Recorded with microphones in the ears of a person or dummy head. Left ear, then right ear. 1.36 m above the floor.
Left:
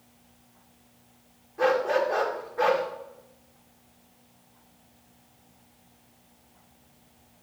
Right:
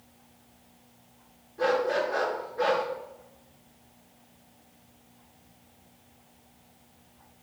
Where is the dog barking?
40° left (ahead or behind), 1.6 m.